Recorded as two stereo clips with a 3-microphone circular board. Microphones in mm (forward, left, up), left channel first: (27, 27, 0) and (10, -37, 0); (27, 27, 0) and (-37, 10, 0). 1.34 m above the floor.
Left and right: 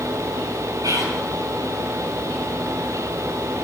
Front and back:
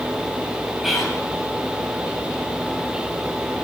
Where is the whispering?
75° right, 8 m.